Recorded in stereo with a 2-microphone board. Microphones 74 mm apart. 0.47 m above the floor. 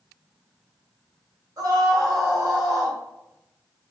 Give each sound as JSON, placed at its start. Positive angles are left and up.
{"t": 1.6, "sound": "a scream", "side_deg": -50, "distance_m": 2.5}